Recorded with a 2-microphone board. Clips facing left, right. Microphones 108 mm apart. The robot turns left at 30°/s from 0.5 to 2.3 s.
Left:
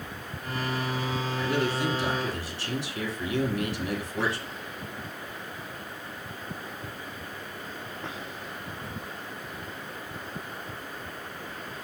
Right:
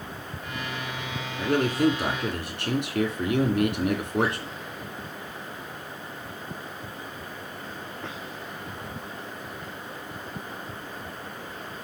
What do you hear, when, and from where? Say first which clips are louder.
1.4 s a man speaking: right 6 dB; 45° right (ahead or behind), 2 m; by 4.5 s 60° right (ahead or behind), 2 m